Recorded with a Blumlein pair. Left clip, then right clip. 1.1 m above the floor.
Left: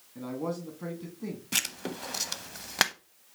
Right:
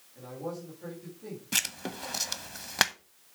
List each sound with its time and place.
0.1 s a man speaking: 45° left, 2.0 m
1.5 s writing: straight ahead, 0.7 m